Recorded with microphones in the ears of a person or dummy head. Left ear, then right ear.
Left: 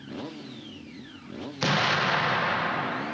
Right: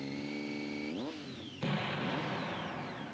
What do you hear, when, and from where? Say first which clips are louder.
1.6 s an explosion: left 13 dB; 55° left (ahead or behind)